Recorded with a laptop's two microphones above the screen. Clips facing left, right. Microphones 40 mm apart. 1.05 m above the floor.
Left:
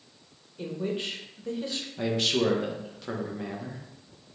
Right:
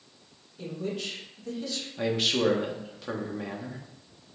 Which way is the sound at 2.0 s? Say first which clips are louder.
Even; 5° right (ahead or behind).